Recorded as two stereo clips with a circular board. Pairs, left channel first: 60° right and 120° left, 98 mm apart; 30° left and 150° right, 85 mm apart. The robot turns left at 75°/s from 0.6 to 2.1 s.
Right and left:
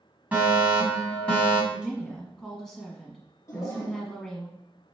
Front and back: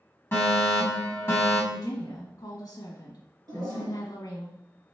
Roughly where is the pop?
No pop in this recording.